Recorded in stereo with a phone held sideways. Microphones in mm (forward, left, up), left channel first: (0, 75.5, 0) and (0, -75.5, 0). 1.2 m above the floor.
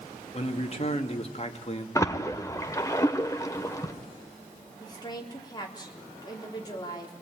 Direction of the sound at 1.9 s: 20° left (ahead or behind).